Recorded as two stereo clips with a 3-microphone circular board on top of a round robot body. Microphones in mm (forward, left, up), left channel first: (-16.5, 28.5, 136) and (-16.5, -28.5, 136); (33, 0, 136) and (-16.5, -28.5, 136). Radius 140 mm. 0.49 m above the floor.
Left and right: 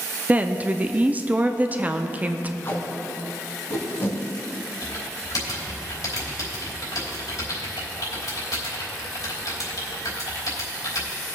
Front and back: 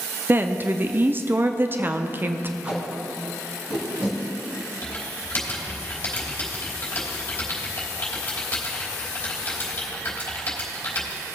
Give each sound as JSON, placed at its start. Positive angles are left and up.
{"t": 0.3, "sound": "a woman speaking", "azimuth_deg": -135, "distance_m": 0.7}
{"t": 2.6, "sound": "tape being pulled", "azimuth_deg": 145, "distance_m": 1.6}
{"t": 4.8, "sound": "typing on a keyboard", "azimuth_deg": 90, "distance_m": 3.0}